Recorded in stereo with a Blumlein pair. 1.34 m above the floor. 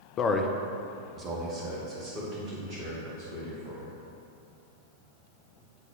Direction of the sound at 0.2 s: 30° left.